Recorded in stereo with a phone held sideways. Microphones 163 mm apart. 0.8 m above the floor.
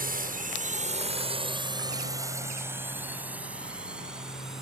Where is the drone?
65° right (ahead or behind); by 4.6 s centre (ahead or behind).